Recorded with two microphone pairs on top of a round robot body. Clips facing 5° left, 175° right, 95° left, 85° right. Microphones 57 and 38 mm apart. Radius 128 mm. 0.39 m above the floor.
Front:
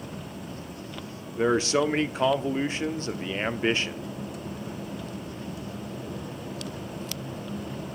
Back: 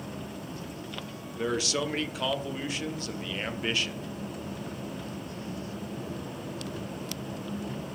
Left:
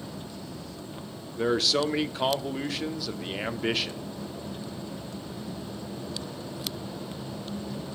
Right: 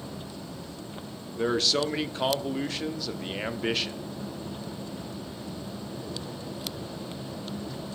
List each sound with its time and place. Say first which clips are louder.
1.4 s a man speaking: front 7 dB, left 1 dB; 20° left, 1.1 m